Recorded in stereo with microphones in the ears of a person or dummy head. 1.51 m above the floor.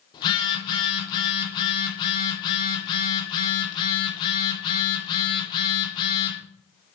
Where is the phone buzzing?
25° left (ahead or behind), 1.6 m.